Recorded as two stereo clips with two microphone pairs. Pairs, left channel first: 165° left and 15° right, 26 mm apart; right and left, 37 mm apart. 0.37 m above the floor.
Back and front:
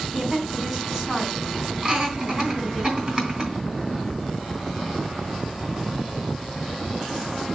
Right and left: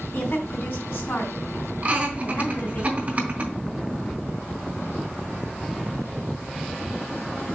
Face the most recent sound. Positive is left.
turn(degrees=50)